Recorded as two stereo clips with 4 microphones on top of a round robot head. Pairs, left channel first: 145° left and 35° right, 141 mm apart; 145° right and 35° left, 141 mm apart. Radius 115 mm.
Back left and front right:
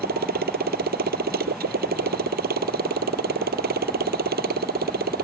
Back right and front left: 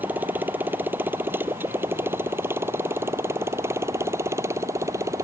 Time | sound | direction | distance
0.0 | a motorcycle | 45° right | ?